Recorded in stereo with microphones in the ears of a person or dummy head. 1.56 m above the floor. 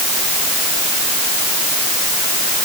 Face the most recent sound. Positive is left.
No sound to turn to.